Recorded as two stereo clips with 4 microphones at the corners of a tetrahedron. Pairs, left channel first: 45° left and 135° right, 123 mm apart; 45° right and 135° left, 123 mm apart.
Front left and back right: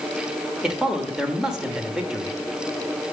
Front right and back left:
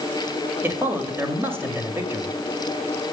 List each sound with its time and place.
0.6 s a man speaking: 150° left, 1.4 m